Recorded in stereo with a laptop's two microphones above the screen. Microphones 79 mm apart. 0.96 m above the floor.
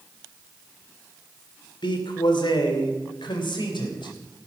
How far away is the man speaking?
About 2.5 m.